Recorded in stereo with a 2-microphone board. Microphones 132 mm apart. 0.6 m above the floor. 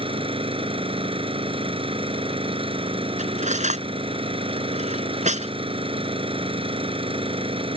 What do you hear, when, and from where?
0.0 s an engine running: 45° right (ahead or behind)
3.2 s cutlery clinking: 65° right (ahead or behind)